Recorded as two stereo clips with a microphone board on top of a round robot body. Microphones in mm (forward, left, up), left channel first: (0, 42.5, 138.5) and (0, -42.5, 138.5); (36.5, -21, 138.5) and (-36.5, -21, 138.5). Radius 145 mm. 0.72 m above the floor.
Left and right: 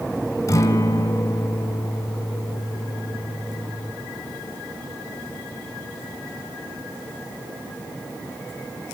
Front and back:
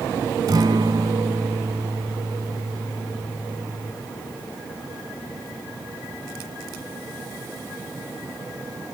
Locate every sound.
0.5 s a guitar: 145° left, 2.5 m